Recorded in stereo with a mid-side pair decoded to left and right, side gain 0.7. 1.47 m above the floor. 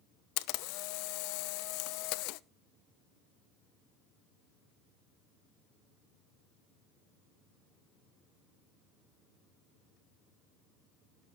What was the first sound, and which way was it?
A camera shutter, 65° left.